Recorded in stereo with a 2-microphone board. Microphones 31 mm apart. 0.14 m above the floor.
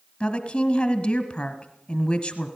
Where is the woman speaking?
25° left (ahead or behind), 1.4 m.